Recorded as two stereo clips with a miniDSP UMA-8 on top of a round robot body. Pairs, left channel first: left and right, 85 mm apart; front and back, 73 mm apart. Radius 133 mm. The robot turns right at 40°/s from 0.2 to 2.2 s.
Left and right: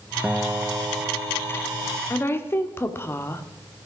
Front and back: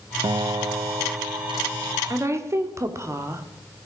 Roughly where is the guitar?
Behind.